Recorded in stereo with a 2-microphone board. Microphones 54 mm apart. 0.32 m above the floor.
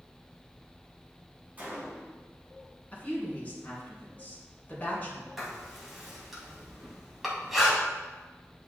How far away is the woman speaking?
About 3 m.